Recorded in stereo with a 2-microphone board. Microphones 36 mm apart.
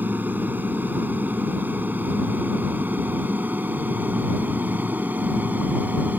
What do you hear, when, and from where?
0.0 s an aircraft: 60° right (ahead or behind); by 6.2 s 55° right (ahead or behind)